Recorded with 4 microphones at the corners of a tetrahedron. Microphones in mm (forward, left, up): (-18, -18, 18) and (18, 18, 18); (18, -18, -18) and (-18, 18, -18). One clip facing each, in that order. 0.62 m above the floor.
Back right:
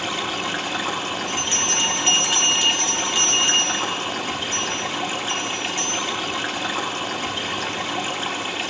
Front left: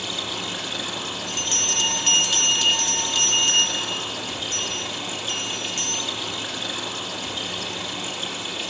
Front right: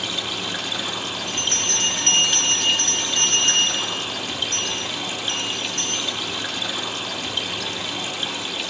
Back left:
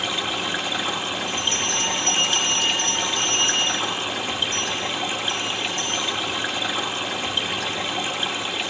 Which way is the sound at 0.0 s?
165° right.